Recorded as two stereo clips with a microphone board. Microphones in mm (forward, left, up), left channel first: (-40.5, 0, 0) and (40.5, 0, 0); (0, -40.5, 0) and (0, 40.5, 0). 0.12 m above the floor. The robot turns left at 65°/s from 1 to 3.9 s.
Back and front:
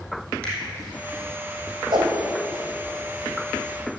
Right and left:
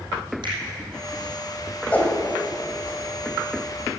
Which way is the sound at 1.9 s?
15° right.